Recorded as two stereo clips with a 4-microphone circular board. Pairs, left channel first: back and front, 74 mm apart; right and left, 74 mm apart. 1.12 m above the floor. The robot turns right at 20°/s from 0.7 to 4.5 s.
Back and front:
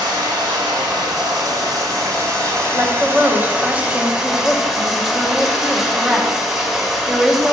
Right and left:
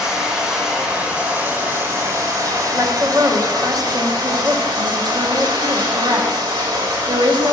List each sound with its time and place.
0.0 s running water: 10° left, 2.0 m; by 7.5 s 85° left, 2.0 m
2.8 s a woman speaking: 45° left, 0.8 m; by 7.5 s 80° left, 0.8 m